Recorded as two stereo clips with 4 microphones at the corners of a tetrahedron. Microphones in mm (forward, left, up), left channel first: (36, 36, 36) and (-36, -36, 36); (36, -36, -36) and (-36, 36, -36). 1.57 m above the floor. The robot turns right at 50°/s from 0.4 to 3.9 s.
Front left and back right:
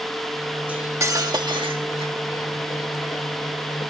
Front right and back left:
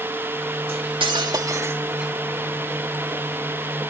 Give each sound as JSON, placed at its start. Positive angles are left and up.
{"t": 0.7, "sound": "cutlery clinking", "azimuth_deg": 150}